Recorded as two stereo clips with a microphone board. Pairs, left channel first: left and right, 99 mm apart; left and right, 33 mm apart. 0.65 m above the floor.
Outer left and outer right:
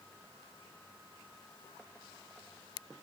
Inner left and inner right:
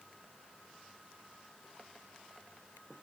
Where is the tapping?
I don't hear tapping.